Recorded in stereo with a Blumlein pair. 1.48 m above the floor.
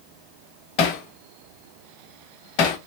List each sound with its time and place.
0.8 s hammering: 40° left, 0.8 m